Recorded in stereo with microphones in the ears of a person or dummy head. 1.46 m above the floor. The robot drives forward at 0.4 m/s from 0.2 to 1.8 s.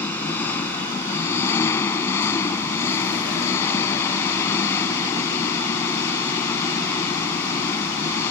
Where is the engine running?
15° left (ahead or behind).